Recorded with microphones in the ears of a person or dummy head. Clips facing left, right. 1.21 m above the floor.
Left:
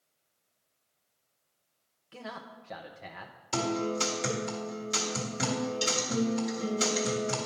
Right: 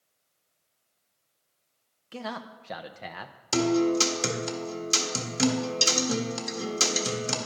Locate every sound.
2.1 s a man speaking: 60° right (ahead or behind), 0.8 m
3.5 s a guitar: 70° right (ahead or behind), 1.7 m